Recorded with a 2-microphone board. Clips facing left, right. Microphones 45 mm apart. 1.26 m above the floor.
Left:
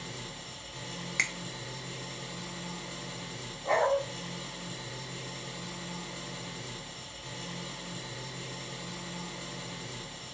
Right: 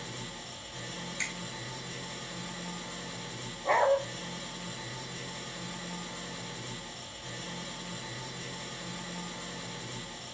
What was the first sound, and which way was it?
An engine running, 35° right (ahead or behind).